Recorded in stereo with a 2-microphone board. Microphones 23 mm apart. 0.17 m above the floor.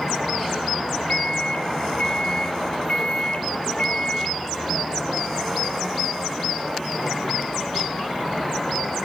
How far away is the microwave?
About 1.5 m.